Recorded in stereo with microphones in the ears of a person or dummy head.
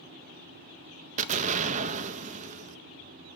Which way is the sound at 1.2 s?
35° right (ahead or behind).